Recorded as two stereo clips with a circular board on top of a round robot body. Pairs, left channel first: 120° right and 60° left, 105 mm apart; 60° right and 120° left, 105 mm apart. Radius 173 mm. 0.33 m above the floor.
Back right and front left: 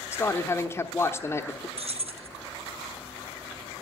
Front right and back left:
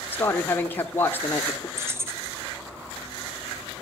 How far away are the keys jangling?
About 1.1 m.